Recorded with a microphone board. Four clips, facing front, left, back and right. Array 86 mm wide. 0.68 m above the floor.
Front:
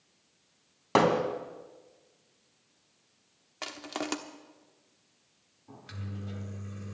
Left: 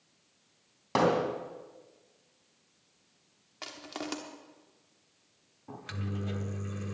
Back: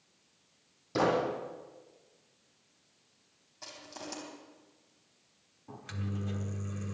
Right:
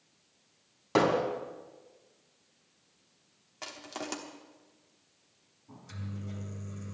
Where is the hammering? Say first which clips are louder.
Even, front 4 dB; 5° left, 2.5 m.